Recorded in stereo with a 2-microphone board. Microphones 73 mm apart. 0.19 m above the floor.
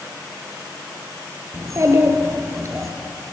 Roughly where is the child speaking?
Right.